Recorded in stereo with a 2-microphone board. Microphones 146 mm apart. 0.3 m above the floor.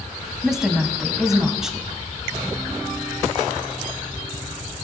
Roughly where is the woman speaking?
Centre.